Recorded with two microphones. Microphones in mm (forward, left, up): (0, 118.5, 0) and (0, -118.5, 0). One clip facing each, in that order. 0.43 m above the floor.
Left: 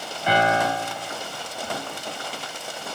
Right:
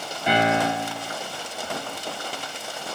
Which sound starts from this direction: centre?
A piano, at 0.3 s.